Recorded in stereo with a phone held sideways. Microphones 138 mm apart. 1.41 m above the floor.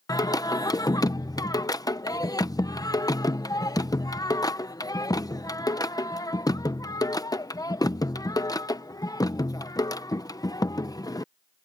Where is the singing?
25° left (ahead or behind).